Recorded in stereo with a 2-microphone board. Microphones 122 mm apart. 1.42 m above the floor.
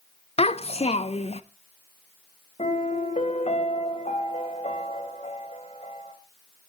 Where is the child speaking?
55° left (ahead or behind), 0.7 m.